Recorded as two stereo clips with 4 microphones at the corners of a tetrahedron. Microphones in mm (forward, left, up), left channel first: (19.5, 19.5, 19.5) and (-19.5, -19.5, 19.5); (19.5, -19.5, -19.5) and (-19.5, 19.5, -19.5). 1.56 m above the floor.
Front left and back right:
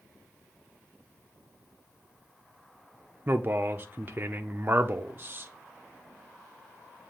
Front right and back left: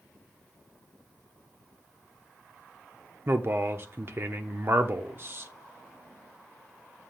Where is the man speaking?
Straight behind, 0.6 m.